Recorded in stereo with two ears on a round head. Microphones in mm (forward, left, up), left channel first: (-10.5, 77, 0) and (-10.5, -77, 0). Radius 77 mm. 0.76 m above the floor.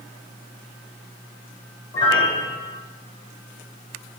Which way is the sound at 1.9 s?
25° left (ahead or behind).